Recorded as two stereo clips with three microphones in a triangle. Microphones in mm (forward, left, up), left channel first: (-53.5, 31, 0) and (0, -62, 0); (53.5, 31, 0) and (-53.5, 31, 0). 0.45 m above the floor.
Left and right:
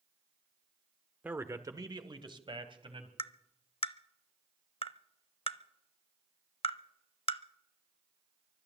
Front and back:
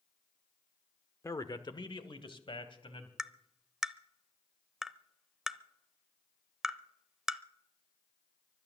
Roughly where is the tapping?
Left.